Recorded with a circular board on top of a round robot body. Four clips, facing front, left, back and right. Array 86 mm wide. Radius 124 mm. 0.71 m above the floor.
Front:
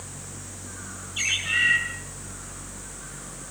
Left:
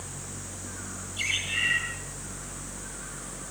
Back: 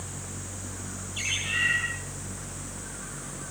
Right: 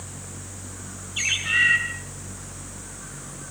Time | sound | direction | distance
1.2 | a bird | 75° right | 7.5 m